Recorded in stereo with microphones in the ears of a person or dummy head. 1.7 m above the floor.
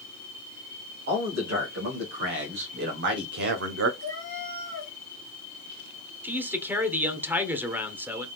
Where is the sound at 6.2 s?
10° right (ahead or behind), 0.9 m.